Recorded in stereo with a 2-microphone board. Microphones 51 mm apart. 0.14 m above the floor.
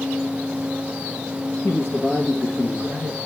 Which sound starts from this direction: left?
A man speaking, at 1.6 s.